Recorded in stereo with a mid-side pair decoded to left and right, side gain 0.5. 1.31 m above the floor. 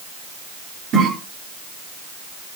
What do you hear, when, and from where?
0.9 s a cough: 65° right, 4.5 m